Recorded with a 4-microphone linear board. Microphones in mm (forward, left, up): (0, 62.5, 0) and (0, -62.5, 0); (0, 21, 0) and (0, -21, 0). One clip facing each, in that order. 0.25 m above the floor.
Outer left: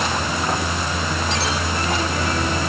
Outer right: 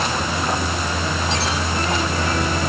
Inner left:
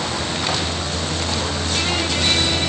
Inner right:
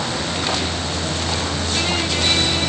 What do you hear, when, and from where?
Only background noise.